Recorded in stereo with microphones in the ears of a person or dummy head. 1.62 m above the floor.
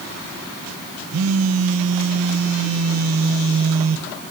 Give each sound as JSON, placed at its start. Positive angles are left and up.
{"t": 1.1, "sound": "a phone buzzing", "side_deg": -85, "distance_m": 1.6}